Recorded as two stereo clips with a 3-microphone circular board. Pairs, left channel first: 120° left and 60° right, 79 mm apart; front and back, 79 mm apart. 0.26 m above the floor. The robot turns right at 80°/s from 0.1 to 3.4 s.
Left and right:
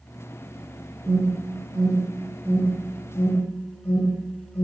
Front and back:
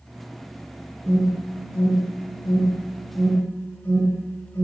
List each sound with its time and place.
1.1 s an alarm: 125° right, 4 m; by 4.7 s 65° left, 4 m